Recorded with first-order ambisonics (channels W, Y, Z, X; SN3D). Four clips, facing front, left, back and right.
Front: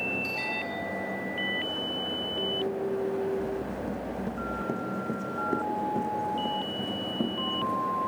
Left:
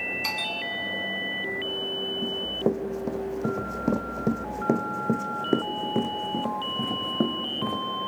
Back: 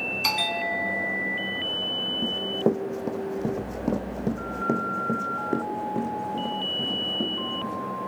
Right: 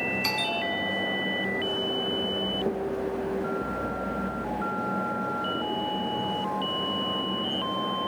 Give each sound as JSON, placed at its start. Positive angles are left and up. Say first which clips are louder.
{"t": 0.2, "sound": "a bell", "louder": "right 2 dB, back 6 dB", "azimuth_deg": -175, "distance_m": 1.7}
{"t": 2.2, "sound": "running footsteps", "louder": "left 1 dB, back 6 dB", "azimuth_deg": 160, "distance_m": 2.0}